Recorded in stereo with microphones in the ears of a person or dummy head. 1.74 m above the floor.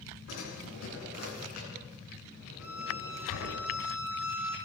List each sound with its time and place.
0.3 s a drawer: 75° left (ahead or behind), 10 m
2.6 s a violin: 15° right (ahead or behind), 8 m